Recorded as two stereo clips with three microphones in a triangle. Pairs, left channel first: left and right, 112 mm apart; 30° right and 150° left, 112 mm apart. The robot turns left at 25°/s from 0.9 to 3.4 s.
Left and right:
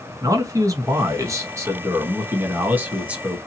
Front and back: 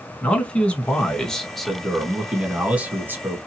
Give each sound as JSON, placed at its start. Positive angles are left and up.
{"t": 0.2, "sound": "a man speaking", "azimuth_deg": -100, "distance_m": 1.2}